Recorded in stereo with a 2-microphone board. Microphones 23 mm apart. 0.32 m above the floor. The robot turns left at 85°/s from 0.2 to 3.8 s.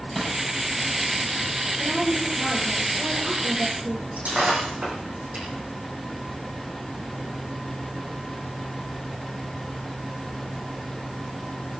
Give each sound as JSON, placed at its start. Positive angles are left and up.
{"t": 0.1, "sound": "crushing", "side_deg": 0, "distance_m": 8.0}
{"t": 1.8, "sound": "a woman speaking", "azimuth_deg": 85, "distance_m": 7.5}
{"t": 4.2, "sound": "breaking glass", "side_deg": -85, "distance_m": 9.0}